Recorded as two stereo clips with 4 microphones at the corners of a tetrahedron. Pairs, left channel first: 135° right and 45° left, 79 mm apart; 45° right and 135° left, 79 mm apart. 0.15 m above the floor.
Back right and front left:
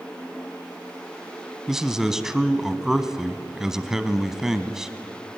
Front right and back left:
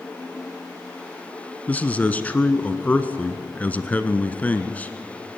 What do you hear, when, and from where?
1.7 s a man speaking: 25° right, 1.0 m